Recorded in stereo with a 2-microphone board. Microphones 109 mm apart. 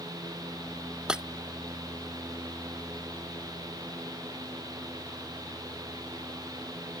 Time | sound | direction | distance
1.1 | breaking glass | 10° right (ahead or behind) | ?